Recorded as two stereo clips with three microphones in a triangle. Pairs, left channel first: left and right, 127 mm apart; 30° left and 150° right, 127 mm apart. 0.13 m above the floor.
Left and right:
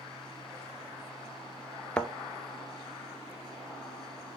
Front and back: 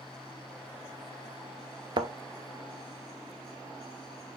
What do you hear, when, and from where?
2.0 s a thud: 170° left, 0.6 m